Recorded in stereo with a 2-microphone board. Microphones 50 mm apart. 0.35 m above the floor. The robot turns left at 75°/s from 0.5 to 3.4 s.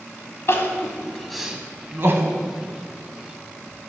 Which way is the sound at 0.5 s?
55° left (ahead or behind).